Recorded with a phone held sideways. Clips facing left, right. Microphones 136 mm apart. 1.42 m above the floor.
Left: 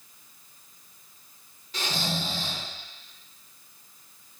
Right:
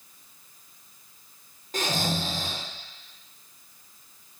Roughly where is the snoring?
Right.